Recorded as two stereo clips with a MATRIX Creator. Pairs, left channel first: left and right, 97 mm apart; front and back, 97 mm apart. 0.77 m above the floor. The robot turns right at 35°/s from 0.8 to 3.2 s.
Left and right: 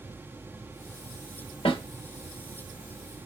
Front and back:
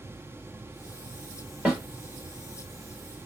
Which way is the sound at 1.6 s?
100° left.